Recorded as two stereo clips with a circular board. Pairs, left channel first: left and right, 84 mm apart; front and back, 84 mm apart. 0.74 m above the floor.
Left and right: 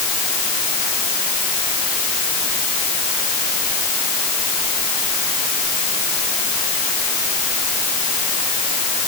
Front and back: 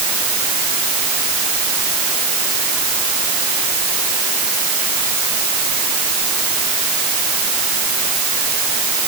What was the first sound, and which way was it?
Only background noise.